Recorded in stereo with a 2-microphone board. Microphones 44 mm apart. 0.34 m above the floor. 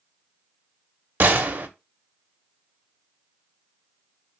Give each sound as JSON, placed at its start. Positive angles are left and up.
{"t": 1.2, "sound": "a gunshot", "side_deg": -45, "distance_m": 0.5}